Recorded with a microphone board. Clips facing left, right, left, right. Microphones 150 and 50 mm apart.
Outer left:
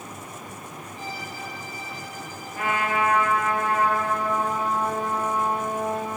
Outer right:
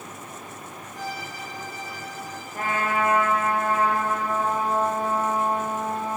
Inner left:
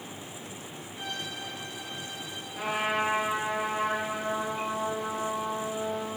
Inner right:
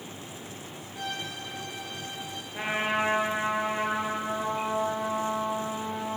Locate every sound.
0.9 s a violin: 85° right, 7.5 m
2.5 s a trumpet: 40° right (ahead or behind), 8 m